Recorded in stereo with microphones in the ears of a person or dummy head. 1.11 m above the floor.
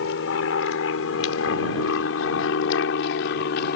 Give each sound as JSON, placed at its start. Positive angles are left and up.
{"t": 0.0, "sound": "an aircraft", "side_deg": 70}